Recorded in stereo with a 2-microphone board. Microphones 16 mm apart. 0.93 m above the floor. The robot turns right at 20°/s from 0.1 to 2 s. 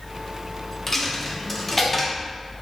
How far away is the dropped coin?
About 0.7 m.